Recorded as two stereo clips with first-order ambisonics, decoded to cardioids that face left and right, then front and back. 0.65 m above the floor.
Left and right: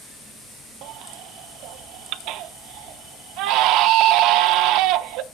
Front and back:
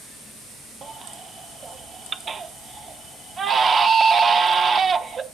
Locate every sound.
0.8 s a baby crying: 115° right, 0.6 m